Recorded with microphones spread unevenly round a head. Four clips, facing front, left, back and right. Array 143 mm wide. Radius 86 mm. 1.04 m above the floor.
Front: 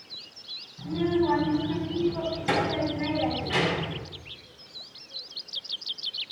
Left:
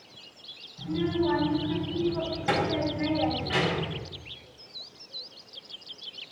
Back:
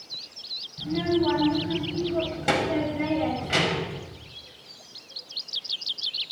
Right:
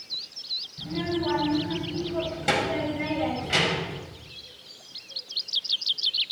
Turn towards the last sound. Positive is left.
turn(degrees=-140)